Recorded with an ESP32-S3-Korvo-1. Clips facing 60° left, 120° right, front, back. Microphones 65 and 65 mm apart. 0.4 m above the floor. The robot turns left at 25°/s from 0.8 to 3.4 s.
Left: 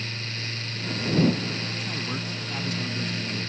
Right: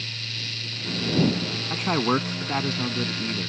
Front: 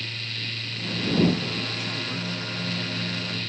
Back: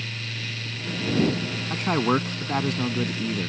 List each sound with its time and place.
1.7 s a man speaking: 145° right; by 3.5 s 175° left